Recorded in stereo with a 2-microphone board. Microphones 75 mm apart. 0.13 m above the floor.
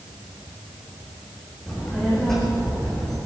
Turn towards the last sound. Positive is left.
turn(degrees=5)  # may be behind; listen again after turning